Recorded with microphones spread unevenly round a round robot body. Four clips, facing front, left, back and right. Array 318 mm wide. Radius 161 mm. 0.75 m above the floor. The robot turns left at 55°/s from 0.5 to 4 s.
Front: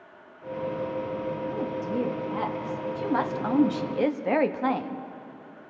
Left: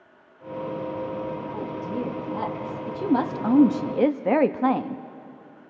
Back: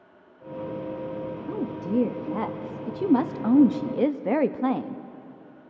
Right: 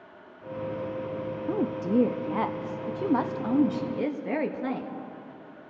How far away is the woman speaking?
About 0.7 m.